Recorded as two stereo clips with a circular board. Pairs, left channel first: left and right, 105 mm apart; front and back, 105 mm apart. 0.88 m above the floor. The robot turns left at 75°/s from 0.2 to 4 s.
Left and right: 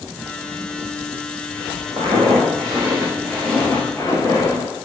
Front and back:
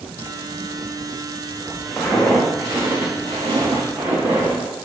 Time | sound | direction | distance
2.0 | footsteps | 85° right | 3.5 m